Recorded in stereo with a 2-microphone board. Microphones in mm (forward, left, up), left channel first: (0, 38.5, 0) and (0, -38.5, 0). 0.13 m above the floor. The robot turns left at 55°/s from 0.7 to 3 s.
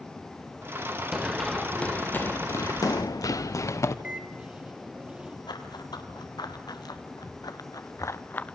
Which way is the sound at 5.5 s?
70° left (ahead or behind).